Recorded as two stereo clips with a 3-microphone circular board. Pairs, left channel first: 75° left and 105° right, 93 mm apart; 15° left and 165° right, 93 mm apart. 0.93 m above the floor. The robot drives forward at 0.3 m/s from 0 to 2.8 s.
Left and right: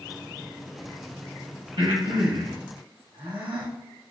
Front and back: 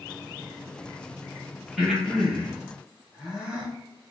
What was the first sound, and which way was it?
Breathing, 85° right.